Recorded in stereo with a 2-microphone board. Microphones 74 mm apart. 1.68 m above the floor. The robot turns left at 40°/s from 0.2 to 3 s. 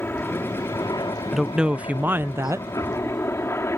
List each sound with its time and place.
0.0 s a helicopter: 150° left; by 3.8 s 40° left
1.3 s a woman speaking: 5° right; by 2.7 s 55° right